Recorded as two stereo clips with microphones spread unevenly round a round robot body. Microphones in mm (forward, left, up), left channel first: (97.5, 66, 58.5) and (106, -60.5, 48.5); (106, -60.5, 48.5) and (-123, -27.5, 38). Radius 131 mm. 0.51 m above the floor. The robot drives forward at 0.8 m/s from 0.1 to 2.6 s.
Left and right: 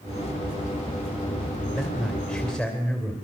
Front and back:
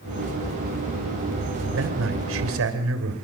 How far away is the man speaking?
About 2.5 m.